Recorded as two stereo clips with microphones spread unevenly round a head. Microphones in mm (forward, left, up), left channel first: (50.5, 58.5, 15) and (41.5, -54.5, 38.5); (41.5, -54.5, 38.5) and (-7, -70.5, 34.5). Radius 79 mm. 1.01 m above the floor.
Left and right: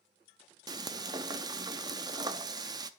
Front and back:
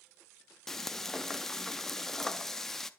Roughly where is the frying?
Ahead right.